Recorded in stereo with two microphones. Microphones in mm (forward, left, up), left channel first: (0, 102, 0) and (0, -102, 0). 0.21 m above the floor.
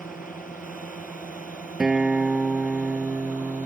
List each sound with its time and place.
0.0 s a drone: 40° left (ahead or behind)
1.8 s a guitar: 5° right (ahead or behind)